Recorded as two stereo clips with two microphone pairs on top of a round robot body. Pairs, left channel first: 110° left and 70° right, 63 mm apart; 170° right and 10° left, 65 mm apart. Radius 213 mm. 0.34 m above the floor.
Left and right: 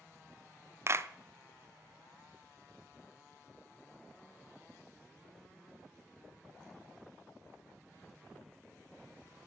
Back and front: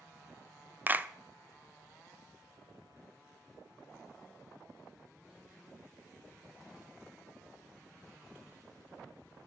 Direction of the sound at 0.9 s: 40° right.